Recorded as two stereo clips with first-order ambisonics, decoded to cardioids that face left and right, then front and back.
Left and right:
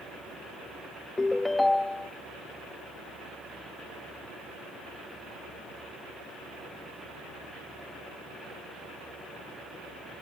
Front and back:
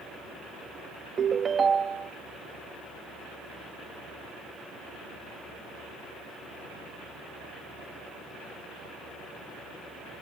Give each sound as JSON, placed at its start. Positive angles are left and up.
{"t": 1.2, "sound": "a ringtone", "azimuth_deg": 155}